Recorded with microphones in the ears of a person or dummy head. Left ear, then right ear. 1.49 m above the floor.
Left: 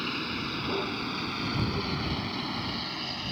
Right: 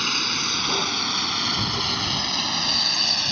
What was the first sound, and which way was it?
A vehicle, 55° right (ahead or behind).